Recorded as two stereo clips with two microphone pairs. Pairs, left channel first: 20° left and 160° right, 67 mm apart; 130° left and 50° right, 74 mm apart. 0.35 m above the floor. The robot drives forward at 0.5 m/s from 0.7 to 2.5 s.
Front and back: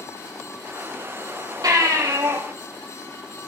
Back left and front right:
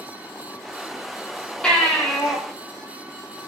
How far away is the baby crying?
About 8.5 m.